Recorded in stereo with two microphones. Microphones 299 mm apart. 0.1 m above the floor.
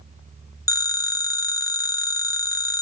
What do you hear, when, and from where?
0.7 s a phone ringing: 10° left (ahead or behind), 0.7 m